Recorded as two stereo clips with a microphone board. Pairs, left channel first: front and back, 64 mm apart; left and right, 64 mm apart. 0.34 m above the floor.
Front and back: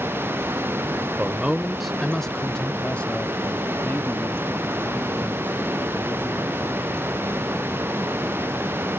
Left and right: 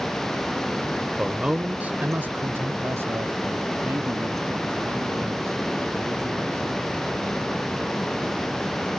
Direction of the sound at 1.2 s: 155° right.